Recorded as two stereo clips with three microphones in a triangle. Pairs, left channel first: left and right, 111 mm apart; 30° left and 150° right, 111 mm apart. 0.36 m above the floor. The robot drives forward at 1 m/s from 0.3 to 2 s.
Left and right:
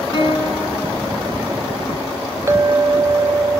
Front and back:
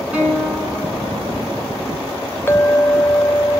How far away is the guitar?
About 4.5 m.